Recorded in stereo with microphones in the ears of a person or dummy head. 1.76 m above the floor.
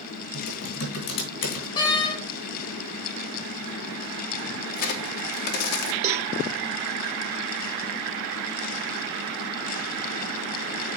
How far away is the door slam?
About 1.0 m.